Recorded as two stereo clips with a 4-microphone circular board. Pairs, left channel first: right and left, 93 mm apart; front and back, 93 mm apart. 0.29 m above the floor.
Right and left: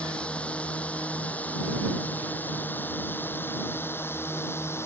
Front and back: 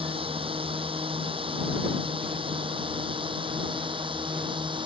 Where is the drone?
170° right; by 4.9 s 155° right.